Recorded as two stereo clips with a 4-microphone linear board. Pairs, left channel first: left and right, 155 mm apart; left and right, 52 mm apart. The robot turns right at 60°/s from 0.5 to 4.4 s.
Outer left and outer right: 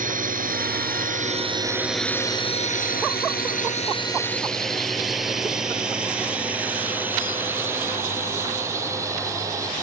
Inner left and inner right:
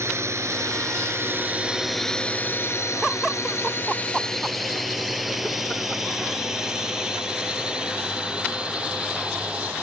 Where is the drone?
60° right (ahead or behind); by 9.8 s 20° right (ahead or behind).